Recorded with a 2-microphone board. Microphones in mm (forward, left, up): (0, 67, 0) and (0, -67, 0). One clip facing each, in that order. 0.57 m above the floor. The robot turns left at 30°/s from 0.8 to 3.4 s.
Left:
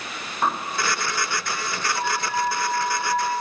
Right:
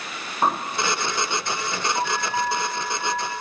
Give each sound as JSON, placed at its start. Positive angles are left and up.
{"t": 0.4, "sound": "a bird", "side_deg": -25, "distance_m": 0.6}
{"t": 1.9, "sound": "an alarm", "azimuth_deg": -140, "distance_m": 4.0}